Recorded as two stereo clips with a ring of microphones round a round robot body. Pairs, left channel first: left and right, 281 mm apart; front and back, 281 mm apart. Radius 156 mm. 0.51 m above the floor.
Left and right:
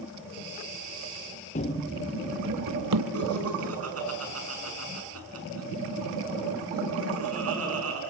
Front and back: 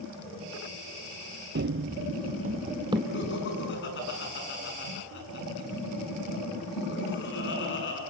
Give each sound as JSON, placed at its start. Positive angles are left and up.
{"t": 1.6, "sound": "running footsteps", "azimuth_deg": 145, "distance_m": 0.6}
{"t": 3.1, "sound": "laughter", "azimuth_deg": -55, "distance_m": 5.5}